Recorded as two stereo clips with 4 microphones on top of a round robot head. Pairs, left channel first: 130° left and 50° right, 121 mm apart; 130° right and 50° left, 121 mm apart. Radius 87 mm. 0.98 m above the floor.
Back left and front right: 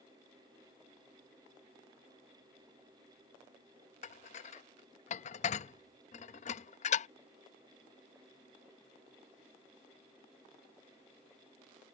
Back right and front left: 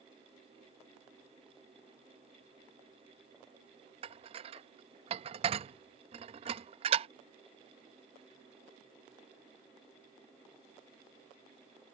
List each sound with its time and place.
4.0 s dishes clattering: 95° left